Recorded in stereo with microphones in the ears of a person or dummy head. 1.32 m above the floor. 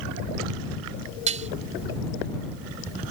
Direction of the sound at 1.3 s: 35° right (ahead or behind).